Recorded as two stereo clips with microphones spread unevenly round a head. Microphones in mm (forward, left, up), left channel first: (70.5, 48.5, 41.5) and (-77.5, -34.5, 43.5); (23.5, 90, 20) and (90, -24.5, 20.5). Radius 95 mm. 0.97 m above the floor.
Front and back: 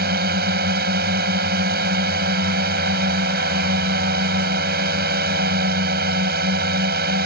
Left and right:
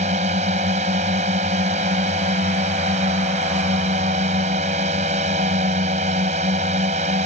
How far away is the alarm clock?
I don't hear an alarm clock.